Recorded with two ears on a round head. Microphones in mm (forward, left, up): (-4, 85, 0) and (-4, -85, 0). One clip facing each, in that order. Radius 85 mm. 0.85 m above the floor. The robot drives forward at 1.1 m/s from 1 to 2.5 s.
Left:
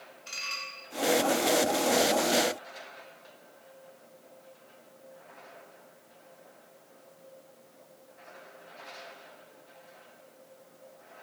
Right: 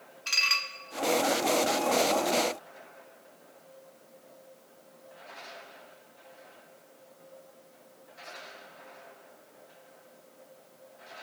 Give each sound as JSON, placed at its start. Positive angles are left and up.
{"t": 0.3, "sound": "dishes clattering", "side_deg": -70, "distance_m": 1.1}